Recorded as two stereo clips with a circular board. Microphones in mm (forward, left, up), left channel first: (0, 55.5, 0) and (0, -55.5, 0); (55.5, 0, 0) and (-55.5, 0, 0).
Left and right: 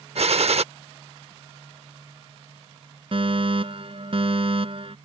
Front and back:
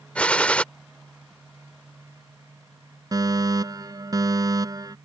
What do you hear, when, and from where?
0.1 s a gunshot: 80° right
3.1 s a fire alarm: 125° right